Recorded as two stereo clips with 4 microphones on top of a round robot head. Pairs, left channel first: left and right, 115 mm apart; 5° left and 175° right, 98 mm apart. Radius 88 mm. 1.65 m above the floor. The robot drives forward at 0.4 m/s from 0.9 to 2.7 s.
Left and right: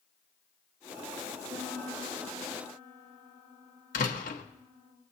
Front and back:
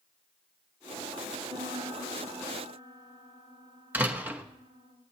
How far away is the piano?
About 4.5 m.